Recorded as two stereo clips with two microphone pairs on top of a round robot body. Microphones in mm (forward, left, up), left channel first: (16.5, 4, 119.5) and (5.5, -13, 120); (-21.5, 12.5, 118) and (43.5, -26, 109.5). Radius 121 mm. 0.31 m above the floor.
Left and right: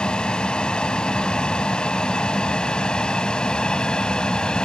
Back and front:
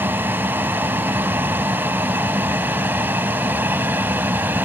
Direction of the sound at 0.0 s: 30° left.